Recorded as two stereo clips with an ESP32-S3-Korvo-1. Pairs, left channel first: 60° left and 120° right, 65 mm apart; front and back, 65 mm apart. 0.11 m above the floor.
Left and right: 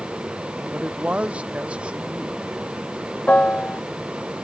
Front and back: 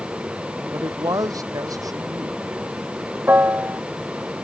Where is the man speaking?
170° left.